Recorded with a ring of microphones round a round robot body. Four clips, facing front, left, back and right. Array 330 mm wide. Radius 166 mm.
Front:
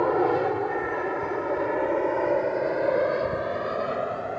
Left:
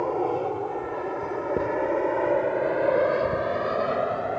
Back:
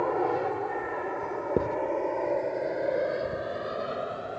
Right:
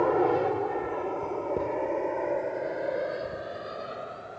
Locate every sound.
0.0 s an aircraft: 35° right; by 4.4 s 75° left
1.6 s writing: 160° left